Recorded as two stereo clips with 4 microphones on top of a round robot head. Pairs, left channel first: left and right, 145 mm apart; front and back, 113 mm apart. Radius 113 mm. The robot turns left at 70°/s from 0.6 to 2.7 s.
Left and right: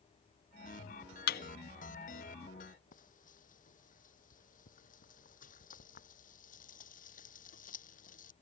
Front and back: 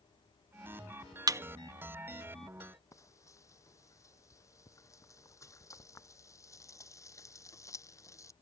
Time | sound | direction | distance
1.3 | a thud | 120° left | ?
2.9 | frying | 65° left | ?